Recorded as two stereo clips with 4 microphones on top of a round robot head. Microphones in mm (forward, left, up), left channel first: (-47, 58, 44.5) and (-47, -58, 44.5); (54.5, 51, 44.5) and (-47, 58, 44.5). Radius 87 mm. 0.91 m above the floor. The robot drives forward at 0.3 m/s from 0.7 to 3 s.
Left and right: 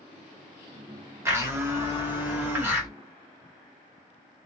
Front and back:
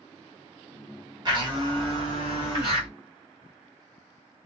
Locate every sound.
1.2 s a blender: 155° right, 1.2 m; by 2.9 s 165° right, 1.6 m